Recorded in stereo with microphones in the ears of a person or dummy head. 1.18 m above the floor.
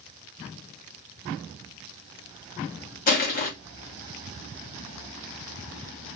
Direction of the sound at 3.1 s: 40° left (ahead or behind).